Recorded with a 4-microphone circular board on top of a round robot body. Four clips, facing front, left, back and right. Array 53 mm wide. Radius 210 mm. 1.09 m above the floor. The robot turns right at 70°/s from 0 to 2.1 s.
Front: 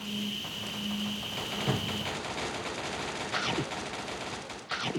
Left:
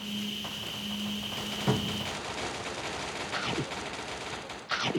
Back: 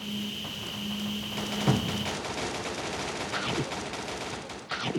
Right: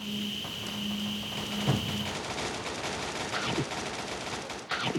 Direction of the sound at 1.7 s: 150° left.